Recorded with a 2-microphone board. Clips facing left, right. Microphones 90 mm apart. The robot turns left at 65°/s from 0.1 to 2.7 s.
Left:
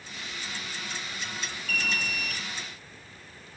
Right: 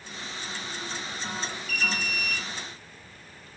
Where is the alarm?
105° left, 4.5 m; by 2.4 s 55° left, 4.5 m.